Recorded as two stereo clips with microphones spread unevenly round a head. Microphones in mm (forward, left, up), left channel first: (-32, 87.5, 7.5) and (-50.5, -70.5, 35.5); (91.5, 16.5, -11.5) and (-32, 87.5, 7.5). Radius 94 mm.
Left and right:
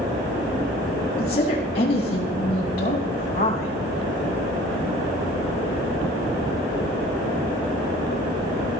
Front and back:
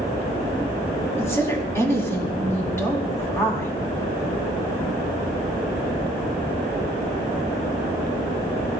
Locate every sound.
1.2 s a woman speaking: 40° left, 7.5 m